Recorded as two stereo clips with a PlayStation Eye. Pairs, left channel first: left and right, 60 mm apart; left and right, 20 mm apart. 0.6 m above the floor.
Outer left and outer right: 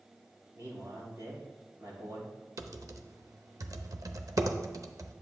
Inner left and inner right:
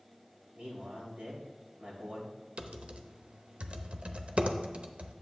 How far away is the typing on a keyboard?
About 0.7 m.